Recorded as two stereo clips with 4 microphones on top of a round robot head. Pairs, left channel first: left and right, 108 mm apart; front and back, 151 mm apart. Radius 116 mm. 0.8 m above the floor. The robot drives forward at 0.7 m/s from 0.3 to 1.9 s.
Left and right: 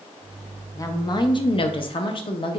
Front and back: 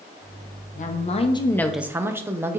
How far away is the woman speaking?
About 0.9 m.